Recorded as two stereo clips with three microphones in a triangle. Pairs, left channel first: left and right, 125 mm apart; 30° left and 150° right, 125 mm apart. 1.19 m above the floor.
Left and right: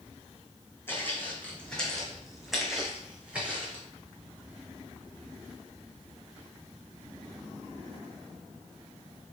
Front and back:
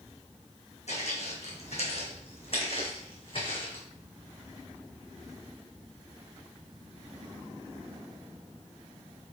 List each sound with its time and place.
0.9 s footsteps: 20° left, 2.5 m; by 3.8 s 15° right, 3 m